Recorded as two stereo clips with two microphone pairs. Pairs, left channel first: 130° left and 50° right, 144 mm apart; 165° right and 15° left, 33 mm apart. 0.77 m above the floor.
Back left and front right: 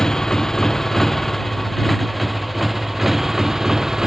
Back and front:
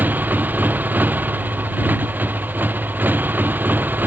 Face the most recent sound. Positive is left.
turn(degrees=35)